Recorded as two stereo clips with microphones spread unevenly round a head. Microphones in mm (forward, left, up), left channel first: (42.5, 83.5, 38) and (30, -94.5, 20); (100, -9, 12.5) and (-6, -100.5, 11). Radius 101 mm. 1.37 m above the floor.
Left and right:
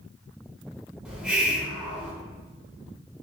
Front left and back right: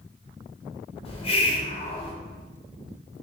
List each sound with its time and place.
1.1 s a hiss: 10° right, 0.8 m